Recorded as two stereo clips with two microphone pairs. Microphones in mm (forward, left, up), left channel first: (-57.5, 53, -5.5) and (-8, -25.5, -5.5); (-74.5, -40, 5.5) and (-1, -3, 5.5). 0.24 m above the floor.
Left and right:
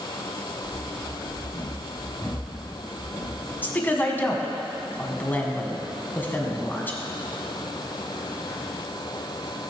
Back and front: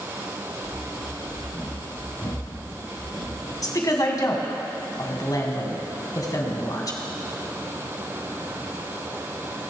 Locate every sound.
0.6 s running footsteps: 145° right, 5 m; by 3.5 s 155° right, 6 m
3.6 s a woman speaking: 175° right, 2.5 m